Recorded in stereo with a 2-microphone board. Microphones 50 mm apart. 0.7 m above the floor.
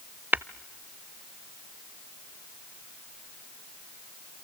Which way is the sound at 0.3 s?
40° right (ahead or behind).